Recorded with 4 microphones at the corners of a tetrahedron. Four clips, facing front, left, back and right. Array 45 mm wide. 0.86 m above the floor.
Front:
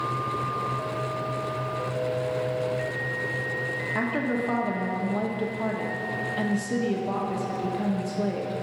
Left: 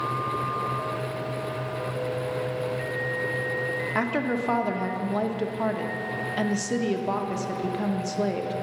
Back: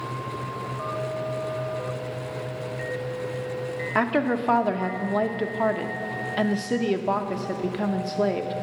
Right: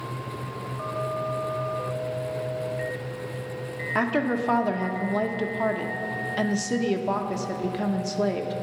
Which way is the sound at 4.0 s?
Straight behind.